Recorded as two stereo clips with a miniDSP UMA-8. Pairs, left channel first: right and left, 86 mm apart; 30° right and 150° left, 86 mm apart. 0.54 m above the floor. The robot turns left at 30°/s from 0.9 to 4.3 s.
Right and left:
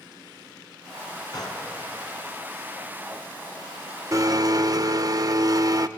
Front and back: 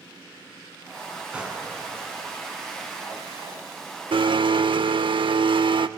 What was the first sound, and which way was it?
A gunshot, 130° right.